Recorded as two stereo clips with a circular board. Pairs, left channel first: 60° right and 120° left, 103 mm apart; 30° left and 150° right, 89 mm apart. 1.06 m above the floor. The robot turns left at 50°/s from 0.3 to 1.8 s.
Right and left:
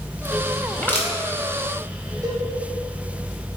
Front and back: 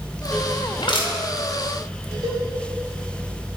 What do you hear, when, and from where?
0.8 s crushing: 15° left, 2 m; by 1.1 s straight ahead, 2 m
2.2 s a cowbell: 175° left, 2.5 m